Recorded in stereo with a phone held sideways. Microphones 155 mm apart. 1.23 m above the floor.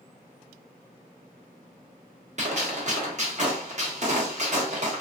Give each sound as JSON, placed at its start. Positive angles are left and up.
{"t": 2.4, "sound": "a gunshot", "side_deg": -50, "distance_m": 1.0}